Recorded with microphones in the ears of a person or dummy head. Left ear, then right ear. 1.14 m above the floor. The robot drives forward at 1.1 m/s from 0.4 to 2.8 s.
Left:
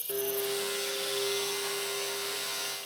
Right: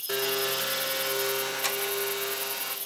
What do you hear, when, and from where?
0.1 s a blender: 55° right (ahead or behind), 1.5 m; by 2.8 s 30° right (ahead or behind), 2.5 m